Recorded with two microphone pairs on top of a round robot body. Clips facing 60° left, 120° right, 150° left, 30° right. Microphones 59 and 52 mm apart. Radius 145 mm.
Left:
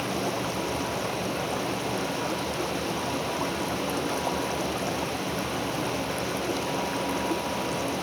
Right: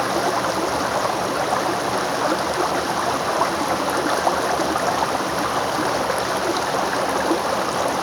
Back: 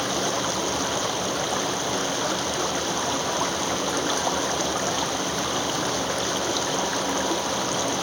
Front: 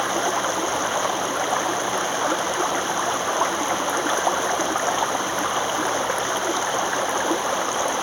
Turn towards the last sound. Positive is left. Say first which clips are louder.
# right 9 dB, front 3 dB
turn(degrees=-90)